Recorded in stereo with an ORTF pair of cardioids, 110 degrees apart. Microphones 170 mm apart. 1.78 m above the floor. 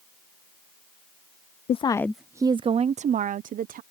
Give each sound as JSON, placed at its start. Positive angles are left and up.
{"t": 1.7, "sound": "a woman speaking", "azimuth_deg": 40}